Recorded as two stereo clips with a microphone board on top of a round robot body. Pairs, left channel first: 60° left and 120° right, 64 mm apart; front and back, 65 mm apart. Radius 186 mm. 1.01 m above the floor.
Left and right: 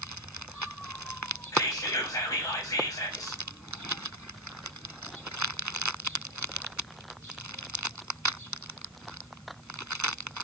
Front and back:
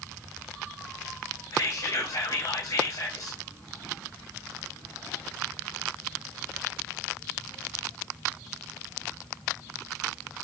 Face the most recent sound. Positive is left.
turn(degrees=20)